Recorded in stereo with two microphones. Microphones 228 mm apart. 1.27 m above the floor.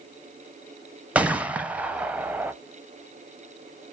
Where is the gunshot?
5° right (ahead or behind), 0.5 m.